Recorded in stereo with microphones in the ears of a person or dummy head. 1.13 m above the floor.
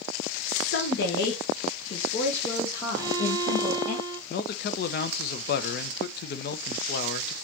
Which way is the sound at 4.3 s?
45° left (ahead or behind).